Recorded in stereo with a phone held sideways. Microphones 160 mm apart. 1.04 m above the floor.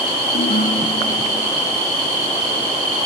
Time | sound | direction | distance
0.3 | a ringtone | 75° left (ahead or behind) | 4.5 m